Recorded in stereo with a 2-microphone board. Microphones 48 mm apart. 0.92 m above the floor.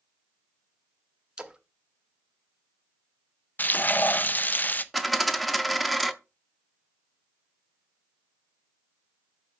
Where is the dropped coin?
Centre (ahead or behind), 0.5 m.